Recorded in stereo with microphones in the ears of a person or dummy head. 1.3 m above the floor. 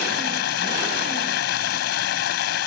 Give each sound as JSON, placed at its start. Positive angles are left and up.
{"t": 0.0, "sound": "running water", "side_deg": 70}